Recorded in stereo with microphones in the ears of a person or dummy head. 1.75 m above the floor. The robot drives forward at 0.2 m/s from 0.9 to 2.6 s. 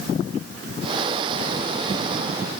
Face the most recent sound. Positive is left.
No sound to turn to.